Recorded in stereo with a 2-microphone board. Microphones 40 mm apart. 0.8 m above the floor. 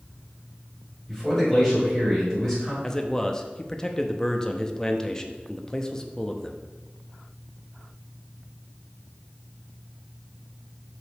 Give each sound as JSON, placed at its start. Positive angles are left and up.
{"t": 1.1, "sound": "a man speaking", "side_deg": 15, "distance_m": 3.5}
{"t": 2.8, "sound": "a man speaking", "side_deg": 15, "distance_m": 0.8}